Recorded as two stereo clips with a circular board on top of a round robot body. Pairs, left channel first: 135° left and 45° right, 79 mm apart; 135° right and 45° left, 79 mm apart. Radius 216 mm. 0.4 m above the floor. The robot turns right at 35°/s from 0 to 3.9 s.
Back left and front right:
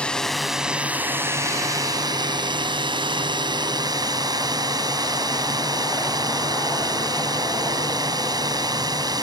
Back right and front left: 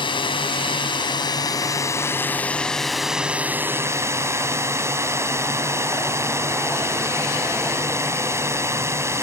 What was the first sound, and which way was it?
A drone, 150° right.